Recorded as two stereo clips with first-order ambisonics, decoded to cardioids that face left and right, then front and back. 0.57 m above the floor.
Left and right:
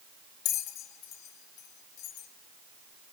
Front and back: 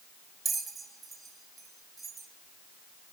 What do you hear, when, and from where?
0.5 s a bell: 110° left, 2 m